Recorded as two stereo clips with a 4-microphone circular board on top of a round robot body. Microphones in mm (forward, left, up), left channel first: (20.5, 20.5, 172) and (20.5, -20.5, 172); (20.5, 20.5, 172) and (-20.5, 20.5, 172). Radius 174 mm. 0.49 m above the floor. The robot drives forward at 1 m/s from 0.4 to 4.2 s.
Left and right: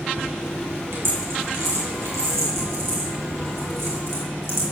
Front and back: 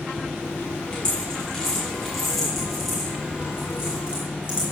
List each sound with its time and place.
0.9 s a dropped coin: 65° right, 4.5 m; by 4.6 s 110° right, 4.5 m